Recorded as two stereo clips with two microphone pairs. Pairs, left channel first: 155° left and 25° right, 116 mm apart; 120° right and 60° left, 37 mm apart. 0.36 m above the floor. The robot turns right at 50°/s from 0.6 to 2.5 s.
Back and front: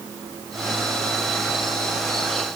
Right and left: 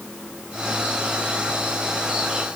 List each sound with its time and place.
Only background noise.